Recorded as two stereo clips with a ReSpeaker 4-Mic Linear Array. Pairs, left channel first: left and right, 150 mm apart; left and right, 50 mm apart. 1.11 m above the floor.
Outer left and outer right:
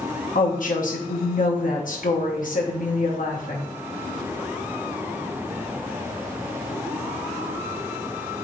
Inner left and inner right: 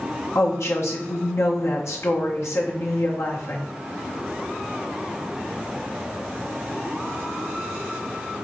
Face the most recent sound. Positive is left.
turn(degrees=65)  # may be behind; listen again after turning